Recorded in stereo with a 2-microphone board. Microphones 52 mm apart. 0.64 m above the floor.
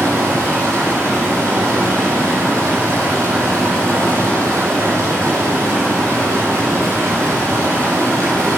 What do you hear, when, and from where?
0.0 s running water: 75° right (ahead or behind), 6.5 m